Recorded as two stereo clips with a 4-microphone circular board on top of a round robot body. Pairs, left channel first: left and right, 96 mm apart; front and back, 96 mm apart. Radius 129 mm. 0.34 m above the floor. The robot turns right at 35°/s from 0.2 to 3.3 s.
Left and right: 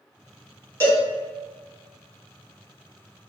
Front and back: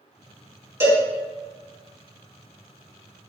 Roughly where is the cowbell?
Behind left.